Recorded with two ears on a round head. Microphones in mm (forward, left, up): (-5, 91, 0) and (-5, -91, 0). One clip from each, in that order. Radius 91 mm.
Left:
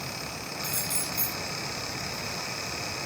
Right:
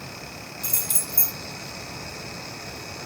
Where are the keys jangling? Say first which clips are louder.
Right 2 dB; 35° right (ahead or behind), 2.5 m.